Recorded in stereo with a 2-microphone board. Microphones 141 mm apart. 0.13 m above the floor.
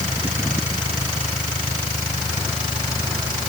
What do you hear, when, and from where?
Only background noise.